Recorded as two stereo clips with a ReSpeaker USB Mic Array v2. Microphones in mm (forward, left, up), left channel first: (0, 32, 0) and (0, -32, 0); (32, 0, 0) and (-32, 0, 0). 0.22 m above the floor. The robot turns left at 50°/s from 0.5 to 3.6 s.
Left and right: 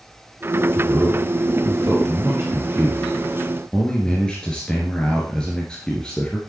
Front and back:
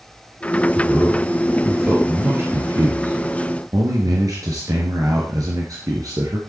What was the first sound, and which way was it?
A man speaking, 55° right.